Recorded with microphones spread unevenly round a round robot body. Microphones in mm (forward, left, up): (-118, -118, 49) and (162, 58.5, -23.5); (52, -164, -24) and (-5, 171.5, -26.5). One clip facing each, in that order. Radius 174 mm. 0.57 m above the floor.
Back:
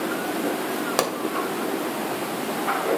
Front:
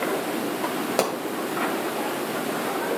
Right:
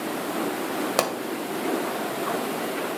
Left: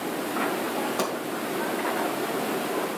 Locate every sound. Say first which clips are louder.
1.0 s a pop: front 2 dB, right 2 dB; 75° right, 2 m